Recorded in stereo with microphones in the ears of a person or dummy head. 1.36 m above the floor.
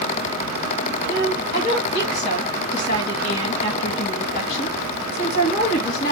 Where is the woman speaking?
45° left (ahead or behind), 1.3 m.